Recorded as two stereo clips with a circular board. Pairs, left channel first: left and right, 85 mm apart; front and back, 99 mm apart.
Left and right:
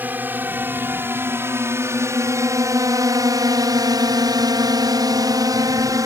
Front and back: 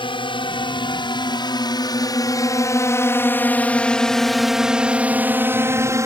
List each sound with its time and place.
0.0 s a drone: 20° right; by 6.1 s 130° right